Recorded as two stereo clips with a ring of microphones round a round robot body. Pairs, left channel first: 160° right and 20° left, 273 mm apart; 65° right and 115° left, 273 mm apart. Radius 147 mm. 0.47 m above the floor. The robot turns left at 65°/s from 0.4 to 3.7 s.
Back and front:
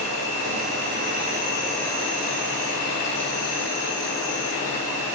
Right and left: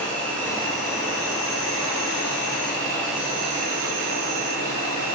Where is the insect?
20° left, 1.2 m; by 5.2 s 165° left, 1.2 m.